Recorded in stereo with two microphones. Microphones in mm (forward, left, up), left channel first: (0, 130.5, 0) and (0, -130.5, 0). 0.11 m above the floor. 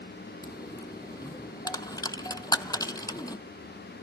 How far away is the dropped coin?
About 0.5 m.